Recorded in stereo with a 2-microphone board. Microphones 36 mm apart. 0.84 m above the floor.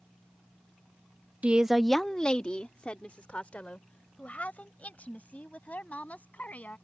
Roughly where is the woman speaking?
Right.